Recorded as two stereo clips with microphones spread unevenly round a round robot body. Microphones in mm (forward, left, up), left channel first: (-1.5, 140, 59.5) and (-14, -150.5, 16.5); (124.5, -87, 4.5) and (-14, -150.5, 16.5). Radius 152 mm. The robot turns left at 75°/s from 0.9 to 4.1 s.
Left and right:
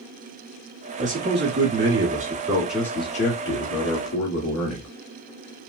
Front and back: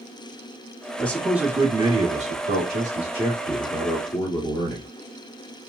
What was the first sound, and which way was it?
A man speaking, 45° right.